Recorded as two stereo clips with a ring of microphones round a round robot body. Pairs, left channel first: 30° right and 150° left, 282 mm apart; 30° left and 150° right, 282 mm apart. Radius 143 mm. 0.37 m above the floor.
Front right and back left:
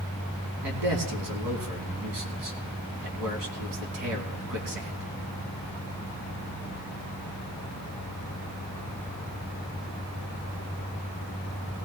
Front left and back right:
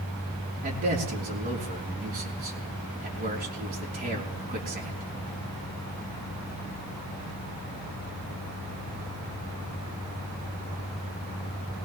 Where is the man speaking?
150° left, 3.5 m.